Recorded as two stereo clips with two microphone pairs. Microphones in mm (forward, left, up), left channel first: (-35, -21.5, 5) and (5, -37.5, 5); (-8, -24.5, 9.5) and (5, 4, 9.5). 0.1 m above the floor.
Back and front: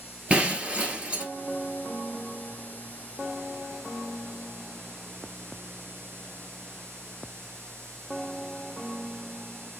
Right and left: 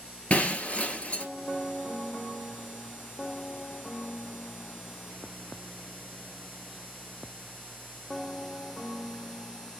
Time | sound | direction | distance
0.3 | breaking glass | 80° right | 1.1 m